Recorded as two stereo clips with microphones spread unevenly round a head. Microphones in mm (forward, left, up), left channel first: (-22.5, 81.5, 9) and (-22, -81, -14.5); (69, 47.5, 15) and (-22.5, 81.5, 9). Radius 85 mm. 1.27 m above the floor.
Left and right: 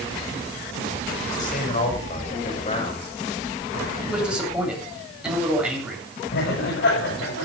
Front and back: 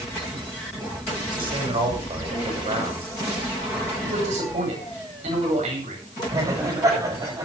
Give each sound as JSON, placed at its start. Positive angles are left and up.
{"t": 1.3, "sound": "a man speaking", "azimuth_deg": 130, "distance_m": 7.5}
{"t": 4.0, "sound": "a man speaking", "azimuth_deg": -175, "distance_m": 9.0}
{"t": 6.3, "sound": "laughter", "azimuth_deg": 110, "distance_m": 8.0}